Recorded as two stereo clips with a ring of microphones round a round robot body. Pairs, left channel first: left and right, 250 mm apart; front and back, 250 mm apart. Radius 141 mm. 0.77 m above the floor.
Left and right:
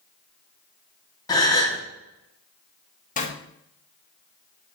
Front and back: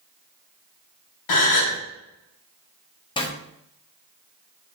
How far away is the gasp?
About 1.4 m.